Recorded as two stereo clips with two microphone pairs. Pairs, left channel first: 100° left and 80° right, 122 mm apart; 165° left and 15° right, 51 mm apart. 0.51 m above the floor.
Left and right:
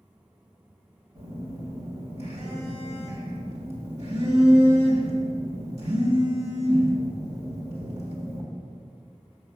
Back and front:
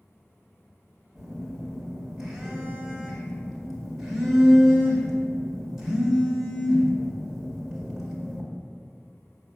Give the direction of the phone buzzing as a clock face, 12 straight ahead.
3 o'clock.